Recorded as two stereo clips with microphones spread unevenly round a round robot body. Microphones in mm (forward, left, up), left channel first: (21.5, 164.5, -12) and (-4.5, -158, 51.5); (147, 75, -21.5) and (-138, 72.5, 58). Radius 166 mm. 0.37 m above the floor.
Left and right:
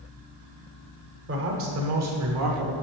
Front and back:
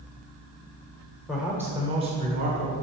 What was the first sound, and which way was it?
A man speaking, 55° right.